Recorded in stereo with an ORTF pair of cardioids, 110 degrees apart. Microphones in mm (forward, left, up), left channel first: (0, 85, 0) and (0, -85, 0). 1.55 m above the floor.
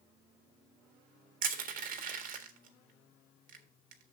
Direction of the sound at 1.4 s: 55° right.